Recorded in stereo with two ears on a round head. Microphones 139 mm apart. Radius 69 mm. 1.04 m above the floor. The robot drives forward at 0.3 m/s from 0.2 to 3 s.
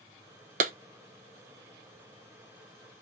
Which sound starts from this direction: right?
A clap, at 0.6 s.